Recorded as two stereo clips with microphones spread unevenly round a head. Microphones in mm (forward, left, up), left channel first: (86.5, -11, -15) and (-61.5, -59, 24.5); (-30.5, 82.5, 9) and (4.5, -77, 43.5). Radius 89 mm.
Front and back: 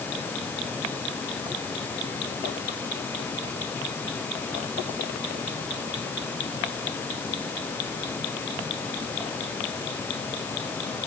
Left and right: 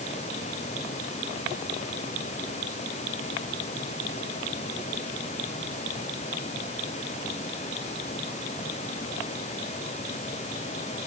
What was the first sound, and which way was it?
Only background noise.